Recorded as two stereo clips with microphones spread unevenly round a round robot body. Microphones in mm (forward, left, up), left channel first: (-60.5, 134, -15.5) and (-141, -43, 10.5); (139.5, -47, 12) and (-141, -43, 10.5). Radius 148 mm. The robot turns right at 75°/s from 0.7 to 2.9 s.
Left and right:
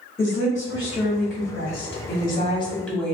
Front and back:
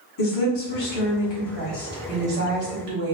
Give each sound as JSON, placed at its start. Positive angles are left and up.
{"t": 0.2, "sound": "a woman speaking", "azimuth_deg": -15, "distance_m": 1.4}